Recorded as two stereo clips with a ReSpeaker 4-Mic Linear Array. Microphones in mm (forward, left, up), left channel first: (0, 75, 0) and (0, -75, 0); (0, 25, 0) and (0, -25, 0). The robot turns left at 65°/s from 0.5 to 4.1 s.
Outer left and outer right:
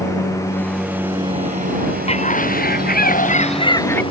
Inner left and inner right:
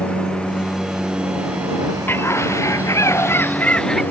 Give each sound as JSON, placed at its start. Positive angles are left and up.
{"t": 0.0, "sound": "a lawn mower", "side_deg": 20}
{"t": 2.1, "sound": "a bird", "azimuth_deg": 135}